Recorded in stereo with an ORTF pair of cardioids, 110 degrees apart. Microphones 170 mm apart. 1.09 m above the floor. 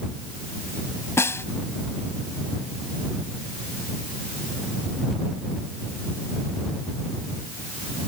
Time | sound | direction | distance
1.2 | a snare drum | 15° left | ?